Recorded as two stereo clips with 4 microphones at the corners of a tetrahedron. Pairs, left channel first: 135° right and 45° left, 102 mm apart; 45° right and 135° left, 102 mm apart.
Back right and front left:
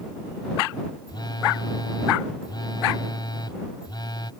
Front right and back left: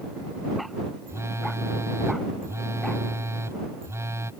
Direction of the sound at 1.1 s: 165° right.